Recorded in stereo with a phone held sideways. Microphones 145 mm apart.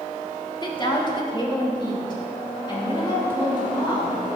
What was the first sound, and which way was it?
A woman speaking, 30° left (ahead or behind).